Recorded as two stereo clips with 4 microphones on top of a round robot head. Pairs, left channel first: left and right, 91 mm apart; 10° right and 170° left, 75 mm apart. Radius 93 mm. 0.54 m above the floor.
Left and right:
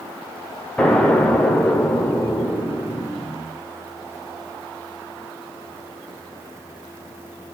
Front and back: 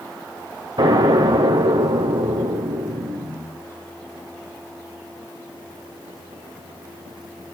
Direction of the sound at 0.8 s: 170° left.